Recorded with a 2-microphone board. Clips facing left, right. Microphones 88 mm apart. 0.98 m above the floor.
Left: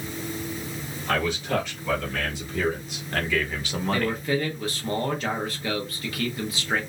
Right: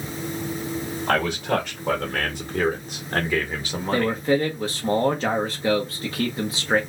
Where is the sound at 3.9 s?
30° right (ahead or behind), 0.9 m.